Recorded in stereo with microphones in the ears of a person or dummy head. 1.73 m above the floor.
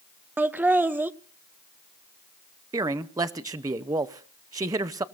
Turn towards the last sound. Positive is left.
turn(degrees=-20)  # may be behind; listen again after turning